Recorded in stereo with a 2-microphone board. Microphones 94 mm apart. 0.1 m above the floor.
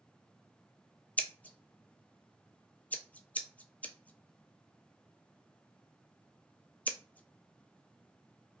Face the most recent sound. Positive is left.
turn(degrees=15)  # may be behind; listen again after turning